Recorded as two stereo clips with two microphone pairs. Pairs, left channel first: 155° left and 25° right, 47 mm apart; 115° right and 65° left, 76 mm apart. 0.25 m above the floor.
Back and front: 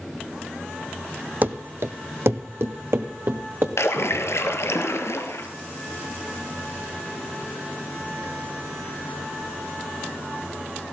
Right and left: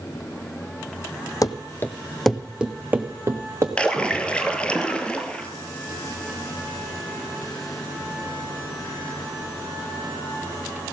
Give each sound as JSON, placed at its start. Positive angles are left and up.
{"t": 1.4, "sound": "running footsteps", "azimuth_deg": -80, "distance_m": 0.6}
{"t": 3.8, "sound": "a splash", "azimuth_deg": 170, "distance_m": 0.9}